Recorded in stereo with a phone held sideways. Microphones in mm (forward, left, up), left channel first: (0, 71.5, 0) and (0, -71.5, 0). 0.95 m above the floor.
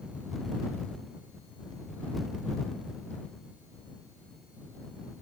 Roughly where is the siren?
I don't hear a siren.